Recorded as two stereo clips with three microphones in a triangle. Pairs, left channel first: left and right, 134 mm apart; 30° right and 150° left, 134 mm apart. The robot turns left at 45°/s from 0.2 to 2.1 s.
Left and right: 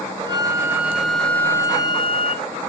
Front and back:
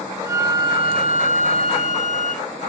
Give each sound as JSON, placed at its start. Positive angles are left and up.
{"t": 0.2, "sound": "a flute", "azimuth_deg": -140, "distance_m": 1.3}